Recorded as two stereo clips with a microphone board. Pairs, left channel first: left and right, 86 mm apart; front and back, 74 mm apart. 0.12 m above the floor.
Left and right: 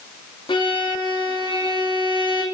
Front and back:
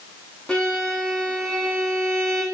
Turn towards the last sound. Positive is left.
turn(degrees=80)